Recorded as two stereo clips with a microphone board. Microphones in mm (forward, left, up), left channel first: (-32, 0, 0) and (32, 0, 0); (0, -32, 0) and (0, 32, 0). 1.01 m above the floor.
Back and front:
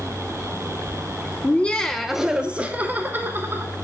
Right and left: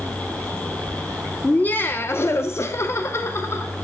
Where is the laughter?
140° right, 0.6 m; by 3.7 s 45° right, 1.2 m.